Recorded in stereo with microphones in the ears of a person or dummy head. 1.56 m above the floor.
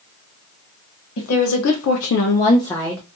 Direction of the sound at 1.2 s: 75° left (ahead or behind).